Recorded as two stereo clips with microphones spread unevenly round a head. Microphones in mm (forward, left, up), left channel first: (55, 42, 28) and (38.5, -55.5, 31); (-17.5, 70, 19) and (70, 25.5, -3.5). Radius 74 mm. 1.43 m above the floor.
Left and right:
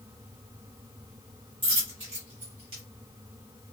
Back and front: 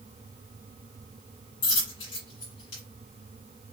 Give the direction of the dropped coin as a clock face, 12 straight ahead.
5 o'clock.